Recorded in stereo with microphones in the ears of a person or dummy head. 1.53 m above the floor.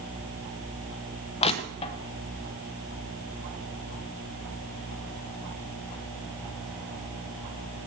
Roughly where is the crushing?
Left.